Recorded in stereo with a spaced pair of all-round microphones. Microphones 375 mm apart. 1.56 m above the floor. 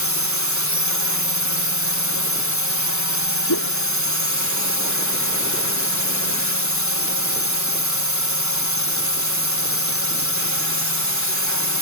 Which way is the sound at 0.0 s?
50° left (ahead or behind).